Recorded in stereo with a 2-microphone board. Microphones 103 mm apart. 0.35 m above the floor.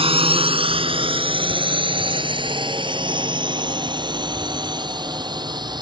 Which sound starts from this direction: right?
A drone, at 0.0 s.